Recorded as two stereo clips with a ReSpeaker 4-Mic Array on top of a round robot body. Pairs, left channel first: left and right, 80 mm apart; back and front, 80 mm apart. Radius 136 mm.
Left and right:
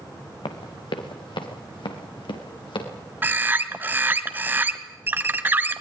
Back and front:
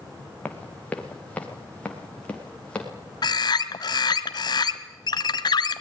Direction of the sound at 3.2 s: 155° right.